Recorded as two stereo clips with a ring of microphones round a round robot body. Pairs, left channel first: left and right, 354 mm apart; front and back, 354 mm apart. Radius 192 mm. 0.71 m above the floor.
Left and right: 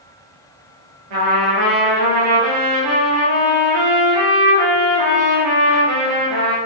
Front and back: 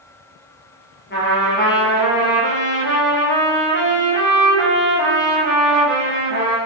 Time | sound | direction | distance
1.1 | a trumpet | 65° right | 4.5 m